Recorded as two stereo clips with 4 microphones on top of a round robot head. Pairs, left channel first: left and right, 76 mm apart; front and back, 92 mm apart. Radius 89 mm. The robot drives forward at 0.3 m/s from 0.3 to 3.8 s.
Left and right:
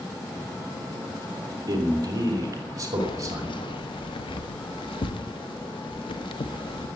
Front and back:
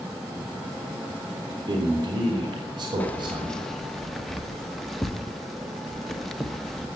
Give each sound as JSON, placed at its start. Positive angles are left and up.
{"t": 1.7, "sound": "a man speaking", "azimuth_deg": -130, "distance_m": 2.5}
{"t": 3.0, "sound": "keys jangling", "azimuth_deg": 70, "distance_m": 1.0}